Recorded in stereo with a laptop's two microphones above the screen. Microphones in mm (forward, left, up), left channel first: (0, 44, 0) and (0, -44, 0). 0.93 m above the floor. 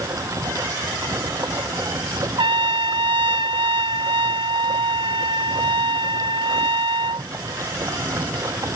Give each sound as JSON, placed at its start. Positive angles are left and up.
{"t": 0.0, "sound": "running water", "side_deg": -35}
{"t": 2.4, "sound": "a trumpet", "side_deg": -75}